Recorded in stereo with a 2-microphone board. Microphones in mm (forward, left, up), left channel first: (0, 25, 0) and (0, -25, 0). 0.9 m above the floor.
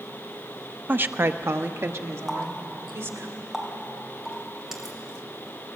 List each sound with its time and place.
0.9 s a woman speaking: 35° right (ahead or behind), 0.7 m; by 3.3 s 65° right (ahead or behind), 2.5 m
2.3 s a running tap: 5° right (ahead or behind), 2.5 m